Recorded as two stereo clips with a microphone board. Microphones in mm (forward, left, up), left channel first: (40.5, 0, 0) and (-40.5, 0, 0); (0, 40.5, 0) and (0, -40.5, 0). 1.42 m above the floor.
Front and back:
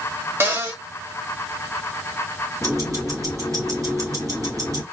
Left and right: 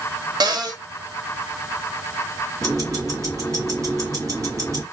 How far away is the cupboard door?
About 0.8 m.